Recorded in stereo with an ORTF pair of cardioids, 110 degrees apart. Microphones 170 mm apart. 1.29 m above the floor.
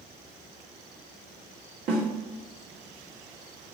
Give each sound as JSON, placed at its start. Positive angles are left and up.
{"t": 1.9, "sound": "a snare drum", "azimuth_deg": -65, "distance_m": 2.5}